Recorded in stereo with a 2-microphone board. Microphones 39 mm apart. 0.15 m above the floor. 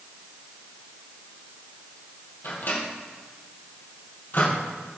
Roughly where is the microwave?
Left.